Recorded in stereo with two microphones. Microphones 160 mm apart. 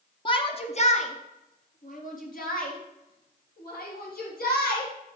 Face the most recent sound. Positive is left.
turn(degrees=70)  # may be behind; listen again after turning